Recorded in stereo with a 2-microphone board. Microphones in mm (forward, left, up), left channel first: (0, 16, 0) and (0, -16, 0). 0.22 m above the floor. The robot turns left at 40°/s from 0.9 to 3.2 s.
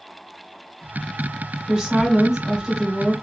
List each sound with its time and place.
1.7 s a woman speaking: 20° right (ahead or behind), 1.5 m; by 3.1 s 10° right (ahead or behind), 1.5 m